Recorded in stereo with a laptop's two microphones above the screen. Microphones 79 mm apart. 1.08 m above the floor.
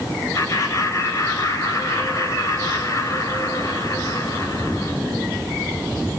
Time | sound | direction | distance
0.3 | laughter | 40° left (ahead or behind) | 4.5 m